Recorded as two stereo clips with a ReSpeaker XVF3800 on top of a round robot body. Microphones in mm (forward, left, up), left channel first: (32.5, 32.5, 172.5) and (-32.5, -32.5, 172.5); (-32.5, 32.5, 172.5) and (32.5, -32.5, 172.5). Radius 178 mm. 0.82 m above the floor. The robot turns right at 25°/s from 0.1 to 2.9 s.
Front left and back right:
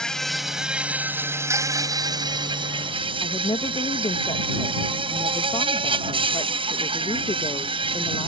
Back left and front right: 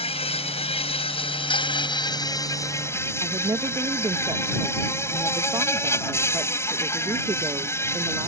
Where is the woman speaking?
10° left.